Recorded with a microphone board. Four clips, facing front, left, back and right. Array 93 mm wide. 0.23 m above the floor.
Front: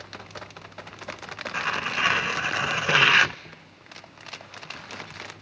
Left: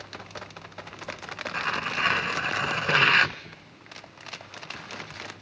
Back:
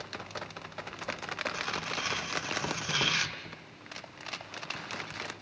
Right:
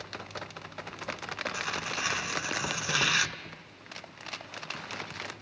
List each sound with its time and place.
1.5 s tearing paper: 35° left, 0.5 m